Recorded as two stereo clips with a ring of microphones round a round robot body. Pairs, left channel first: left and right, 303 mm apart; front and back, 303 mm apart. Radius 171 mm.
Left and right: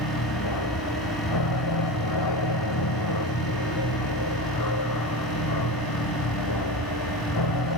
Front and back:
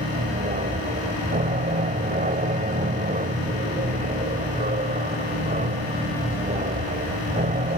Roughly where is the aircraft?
Behind left.